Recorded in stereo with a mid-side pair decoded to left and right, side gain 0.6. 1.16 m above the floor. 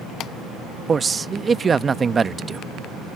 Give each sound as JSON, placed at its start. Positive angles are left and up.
{"t": 0.9, "sound": "a man speaking", "azimuth_deg": -25}